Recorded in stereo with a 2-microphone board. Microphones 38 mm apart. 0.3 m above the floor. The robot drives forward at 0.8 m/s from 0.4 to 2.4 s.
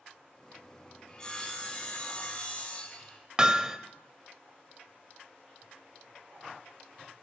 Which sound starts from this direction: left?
Sawing, at 1.1 s.